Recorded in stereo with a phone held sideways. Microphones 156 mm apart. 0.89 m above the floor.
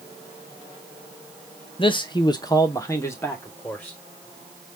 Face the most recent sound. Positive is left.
turn(degrees=10)  # may be behind; listen again after turning